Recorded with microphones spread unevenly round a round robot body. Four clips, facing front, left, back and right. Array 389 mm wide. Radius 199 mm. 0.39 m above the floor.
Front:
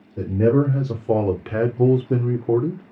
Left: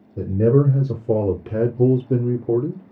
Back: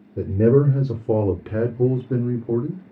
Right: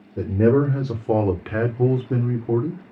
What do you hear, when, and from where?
0.2 s a man speaking: 165° right, 1.2 m; by 2.8 s 35° left, 1.0 m